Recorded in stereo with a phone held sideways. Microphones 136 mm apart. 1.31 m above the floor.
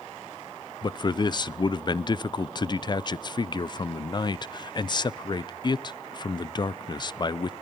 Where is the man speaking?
35° left (ahead or behind), 0.6 m.